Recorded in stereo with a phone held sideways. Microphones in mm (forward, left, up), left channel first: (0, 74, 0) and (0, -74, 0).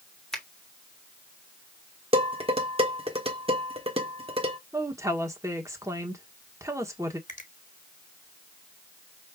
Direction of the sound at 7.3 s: 60° left (ahead or behind).